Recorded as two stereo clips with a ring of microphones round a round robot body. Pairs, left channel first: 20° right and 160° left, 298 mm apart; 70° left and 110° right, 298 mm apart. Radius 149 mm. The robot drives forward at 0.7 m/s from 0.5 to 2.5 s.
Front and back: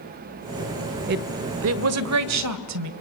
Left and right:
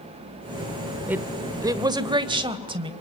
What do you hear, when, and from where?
1.1 s a woman speaking: 170° left, 0.9 m; by 2.9 s 175° left, 1.7 m